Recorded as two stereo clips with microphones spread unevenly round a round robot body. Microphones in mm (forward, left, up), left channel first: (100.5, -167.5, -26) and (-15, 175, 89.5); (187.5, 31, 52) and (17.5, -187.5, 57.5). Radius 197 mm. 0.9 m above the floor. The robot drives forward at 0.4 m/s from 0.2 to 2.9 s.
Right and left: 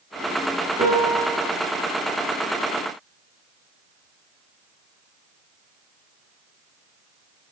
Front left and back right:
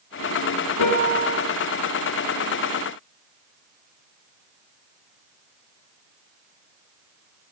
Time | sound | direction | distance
0.8 | a piano | 30° left | 7 m